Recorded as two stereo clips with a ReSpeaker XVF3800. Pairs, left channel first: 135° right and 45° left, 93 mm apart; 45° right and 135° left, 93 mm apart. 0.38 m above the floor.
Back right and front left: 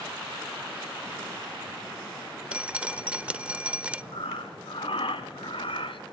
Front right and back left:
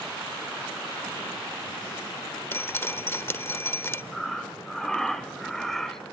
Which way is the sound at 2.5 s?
15° right.